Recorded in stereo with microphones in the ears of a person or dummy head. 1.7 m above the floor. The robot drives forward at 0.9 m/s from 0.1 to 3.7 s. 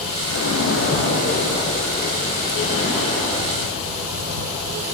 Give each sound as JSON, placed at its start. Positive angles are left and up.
{"t": 0.3, "sound": "a splash", "side_deg": 85, "distance_m": 1.0}